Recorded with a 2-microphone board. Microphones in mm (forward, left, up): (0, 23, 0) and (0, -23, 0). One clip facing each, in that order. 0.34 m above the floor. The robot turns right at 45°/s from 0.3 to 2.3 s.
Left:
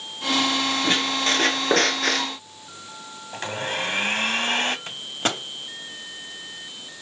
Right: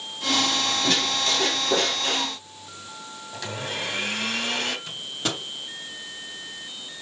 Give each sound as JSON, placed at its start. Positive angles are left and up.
{"t": 0.8, "sound": "a squeak", "azimuth_deg": 20, "distance_m": 3.0}
{"t": 3.3, "sound": "a blender", "side_deg": 40, "distance_m": 2.0}
{"t": 4.9, "sound": "a microwave", "side_deg": 45, "distance_m": 1.8}